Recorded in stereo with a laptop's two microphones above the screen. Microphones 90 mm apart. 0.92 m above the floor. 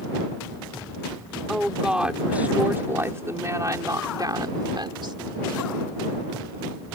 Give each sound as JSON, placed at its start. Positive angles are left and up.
{"t": 1.5, "sound": "a woman speaking", "side_deg": -5}